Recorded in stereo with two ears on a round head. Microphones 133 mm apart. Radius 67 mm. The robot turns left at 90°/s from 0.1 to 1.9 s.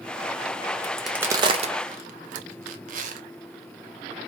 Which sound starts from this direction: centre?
A crack, at 0.8 s.